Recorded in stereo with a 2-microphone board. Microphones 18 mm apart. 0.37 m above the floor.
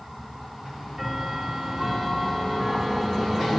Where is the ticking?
30° right (ahead or behind), 8.5 m.